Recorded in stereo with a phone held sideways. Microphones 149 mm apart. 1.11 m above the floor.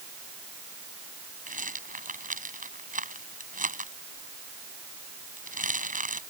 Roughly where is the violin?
I don't hear a violin.